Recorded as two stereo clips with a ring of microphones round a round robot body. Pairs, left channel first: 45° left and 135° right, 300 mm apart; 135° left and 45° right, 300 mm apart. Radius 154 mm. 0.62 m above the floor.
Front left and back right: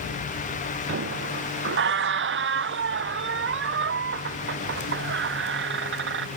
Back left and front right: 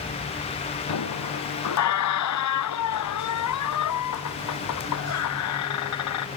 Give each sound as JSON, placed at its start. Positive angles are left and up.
{"t": 0.9, "sound": "a squeak", "azimuth_deg": 170}